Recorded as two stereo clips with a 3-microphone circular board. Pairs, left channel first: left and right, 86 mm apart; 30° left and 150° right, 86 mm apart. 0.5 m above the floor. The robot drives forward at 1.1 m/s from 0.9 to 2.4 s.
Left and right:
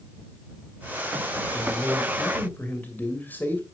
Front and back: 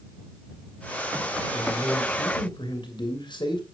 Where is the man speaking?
15° left, 3 m; by 3.6 s 25° left, 2 m.